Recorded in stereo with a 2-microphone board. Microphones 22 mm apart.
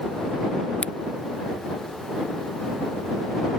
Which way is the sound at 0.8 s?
70° left (ahead or behind).